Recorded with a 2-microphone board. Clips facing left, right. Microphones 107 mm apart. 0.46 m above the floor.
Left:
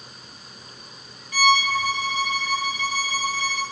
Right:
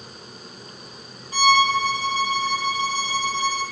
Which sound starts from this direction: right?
A violin, at 1.3 s.